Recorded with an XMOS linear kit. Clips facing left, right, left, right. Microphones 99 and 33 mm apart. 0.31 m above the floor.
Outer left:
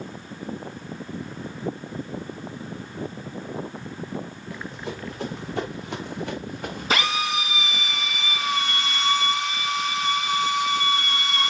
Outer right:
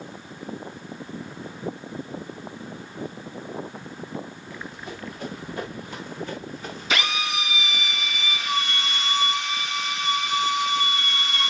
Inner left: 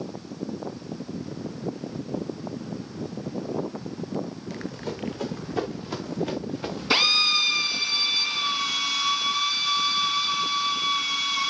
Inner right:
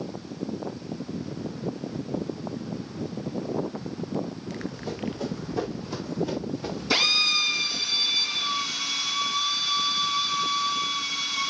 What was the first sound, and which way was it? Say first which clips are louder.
Running footsteps: outer left 4 dB, even; 85° left.